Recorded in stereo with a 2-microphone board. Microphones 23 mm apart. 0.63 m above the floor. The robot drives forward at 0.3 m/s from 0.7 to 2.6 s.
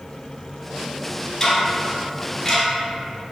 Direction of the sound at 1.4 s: 25° left (ahead or behind).